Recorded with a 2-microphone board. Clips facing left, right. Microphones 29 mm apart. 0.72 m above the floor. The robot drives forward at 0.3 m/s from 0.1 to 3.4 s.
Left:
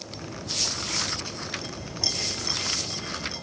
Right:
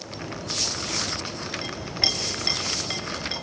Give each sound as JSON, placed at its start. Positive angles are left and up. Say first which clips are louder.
{"t": 1.6, "sound": "a clink", "louder": "right 8 dB", "side_deg": -55, "distance_m": 4.0}